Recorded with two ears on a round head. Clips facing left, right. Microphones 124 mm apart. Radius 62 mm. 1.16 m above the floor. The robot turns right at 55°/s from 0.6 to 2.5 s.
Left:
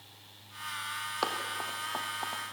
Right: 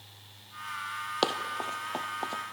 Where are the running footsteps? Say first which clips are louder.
Right 4 dB; 35° right (ahead or behind), 1.3 m.